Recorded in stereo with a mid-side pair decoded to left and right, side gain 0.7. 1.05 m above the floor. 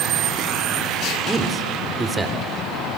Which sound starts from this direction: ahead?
A man speaking, at 1.3 s.